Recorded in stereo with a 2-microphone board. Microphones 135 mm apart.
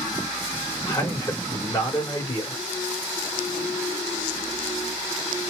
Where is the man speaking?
25° left (ahead or behind), 1.7 m.